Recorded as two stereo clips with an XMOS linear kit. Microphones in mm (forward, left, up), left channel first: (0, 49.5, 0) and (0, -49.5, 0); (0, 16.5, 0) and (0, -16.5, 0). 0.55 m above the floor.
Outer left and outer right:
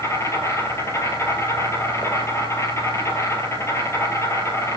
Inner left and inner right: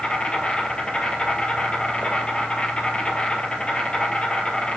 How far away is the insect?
About 1.4 m.